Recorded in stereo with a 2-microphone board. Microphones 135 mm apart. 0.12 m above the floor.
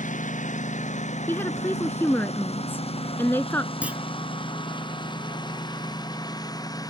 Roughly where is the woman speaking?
Centre.